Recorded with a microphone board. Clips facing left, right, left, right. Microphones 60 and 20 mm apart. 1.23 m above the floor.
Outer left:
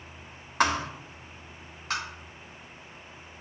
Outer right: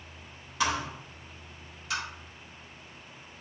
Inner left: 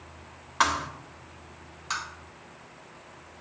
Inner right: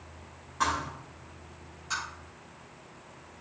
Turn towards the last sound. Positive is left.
turn(degrees=45)  # may be behind; listen again after turning